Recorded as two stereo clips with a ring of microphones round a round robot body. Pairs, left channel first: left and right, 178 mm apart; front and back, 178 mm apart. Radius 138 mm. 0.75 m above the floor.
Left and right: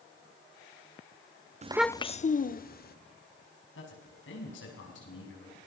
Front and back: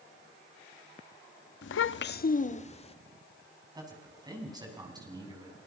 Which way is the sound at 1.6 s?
35° right.